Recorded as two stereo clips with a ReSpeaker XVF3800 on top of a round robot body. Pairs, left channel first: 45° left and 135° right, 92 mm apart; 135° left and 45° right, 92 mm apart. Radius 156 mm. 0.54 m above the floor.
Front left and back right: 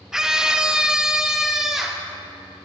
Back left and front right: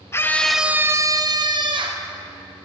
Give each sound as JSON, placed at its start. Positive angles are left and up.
{"t": 0.1, "sound": "a scream", "azimuth_deg": 145, "distance_m": 1.1}